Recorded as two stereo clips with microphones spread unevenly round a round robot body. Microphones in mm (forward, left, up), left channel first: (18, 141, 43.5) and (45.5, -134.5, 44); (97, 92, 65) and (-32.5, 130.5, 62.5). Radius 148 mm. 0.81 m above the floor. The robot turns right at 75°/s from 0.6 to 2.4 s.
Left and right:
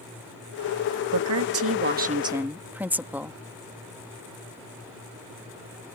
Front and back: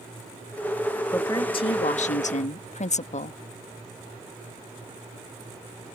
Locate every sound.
1.1 s a woman speaking: 95° right; by 3.4 s straight ahead